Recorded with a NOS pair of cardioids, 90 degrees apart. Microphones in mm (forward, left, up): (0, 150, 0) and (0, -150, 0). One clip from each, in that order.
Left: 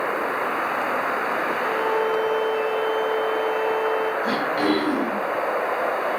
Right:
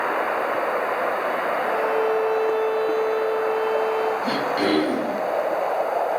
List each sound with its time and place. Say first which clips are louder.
1.6 s a violin: right 1 dB; 20° right, 2.0 m
4.2 s throat clearing: even; 30° right, 3.5 m